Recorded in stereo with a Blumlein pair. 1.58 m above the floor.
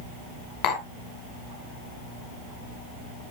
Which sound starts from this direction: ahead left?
Tapping, at 0.6 s.